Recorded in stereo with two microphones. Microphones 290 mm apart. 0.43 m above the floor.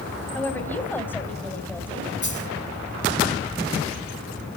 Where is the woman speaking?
5° left (ahead or behind), 3.5 m.